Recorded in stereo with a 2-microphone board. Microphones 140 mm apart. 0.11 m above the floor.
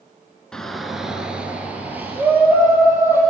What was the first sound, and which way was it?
A shout, 5° left (ahead or behind).